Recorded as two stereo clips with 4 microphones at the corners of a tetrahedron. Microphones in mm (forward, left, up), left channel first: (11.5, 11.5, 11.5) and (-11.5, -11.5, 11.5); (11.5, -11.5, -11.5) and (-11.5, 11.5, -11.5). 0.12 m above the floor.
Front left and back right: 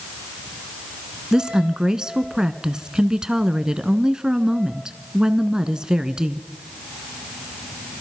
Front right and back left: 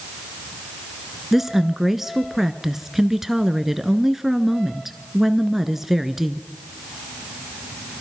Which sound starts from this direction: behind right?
A woman speaking, at 1.3 s.